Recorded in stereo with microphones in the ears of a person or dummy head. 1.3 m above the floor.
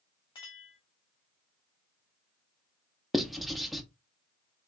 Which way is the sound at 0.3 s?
25° left (ahead or behind).